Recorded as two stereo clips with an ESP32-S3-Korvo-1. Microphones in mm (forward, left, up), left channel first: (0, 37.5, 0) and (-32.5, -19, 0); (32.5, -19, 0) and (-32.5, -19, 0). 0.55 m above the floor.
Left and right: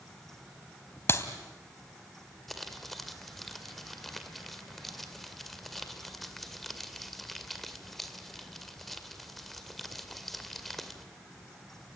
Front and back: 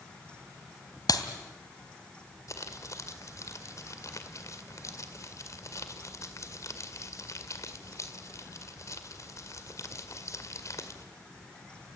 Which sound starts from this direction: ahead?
A clap, at 1.1 s.